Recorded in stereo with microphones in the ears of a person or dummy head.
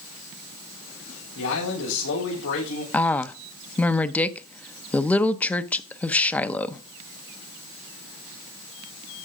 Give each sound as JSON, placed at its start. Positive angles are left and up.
{"t": 1.4, "sound": "a man speaking", "side_deg": 75, "distance_m": 6.0}
{"t": 2.9, "sound": "a woman speaking", "side_deg": 10, "distance_m": 0.7}